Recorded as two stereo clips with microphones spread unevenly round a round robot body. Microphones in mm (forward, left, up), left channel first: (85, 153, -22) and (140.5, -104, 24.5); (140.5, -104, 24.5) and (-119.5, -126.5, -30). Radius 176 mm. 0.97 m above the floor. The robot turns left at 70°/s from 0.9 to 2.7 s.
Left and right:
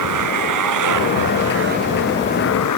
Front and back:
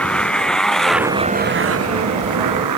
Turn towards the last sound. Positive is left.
turn(degrees=145)